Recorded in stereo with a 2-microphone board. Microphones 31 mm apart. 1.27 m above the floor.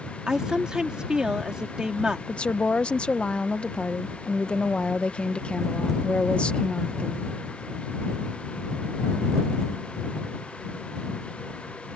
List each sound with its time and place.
0.3 s a woman speaking: 25° right (ahead or behind)
2.3 s a woman speaking: 35° left (ahead or behind)